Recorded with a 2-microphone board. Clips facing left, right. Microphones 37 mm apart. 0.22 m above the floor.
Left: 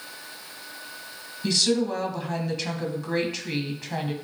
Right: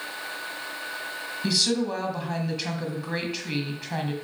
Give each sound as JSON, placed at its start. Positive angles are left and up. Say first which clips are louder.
{"t": 1.4, "sound": "a woman speaking", "louder": "left 2 dB", "side_deg": -5, "distance_m": 1.4}